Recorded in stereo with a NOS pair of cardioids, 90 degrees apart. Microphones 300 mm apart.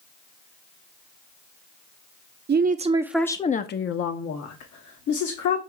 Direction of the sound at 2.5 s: 35° right.